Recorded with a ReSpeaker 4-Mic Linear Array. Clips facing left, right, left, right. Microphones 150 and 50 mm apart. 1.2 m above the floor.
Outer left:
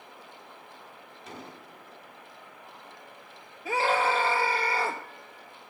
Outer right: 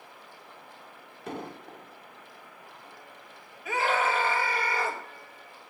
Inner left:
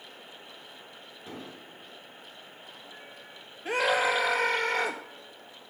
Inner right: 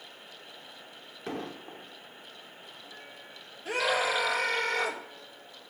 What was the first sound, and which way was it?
An explosion, 60° right (ahead or behind).